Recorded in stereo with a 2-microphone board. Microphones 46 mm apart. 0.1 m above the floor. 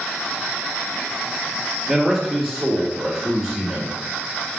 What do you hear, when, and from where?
1.9 s a man speaking: 10° right (ahead or behind), 2.5 m